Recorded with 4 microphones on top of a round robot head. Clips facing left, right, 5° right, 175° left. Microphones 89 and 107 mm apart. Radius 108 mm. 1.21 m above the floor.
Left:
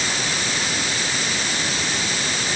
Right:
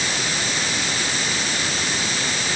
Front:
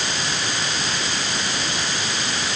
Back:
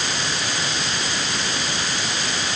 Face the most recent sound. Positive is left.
No sound to turn to.